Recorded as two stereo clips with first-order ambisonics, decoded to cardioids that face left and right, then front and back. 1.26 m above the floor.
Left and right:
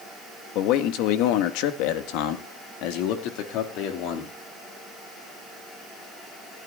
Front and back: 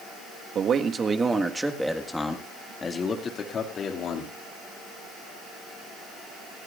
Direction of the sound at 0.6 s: 120° left.